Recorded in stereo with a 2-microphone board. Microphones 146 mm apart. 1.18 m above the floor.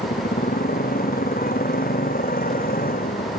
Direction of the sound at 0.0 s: 90° left.